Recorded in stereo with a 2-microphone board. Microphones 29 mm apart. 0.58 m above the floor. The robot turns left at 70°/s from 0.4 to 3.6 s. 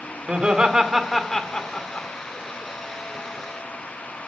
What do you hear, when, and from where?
0.3 s laughter: 40° right (ahead or behind), 1.9 m; by 2.1 s 50° left (ahead or behind), 1.9 m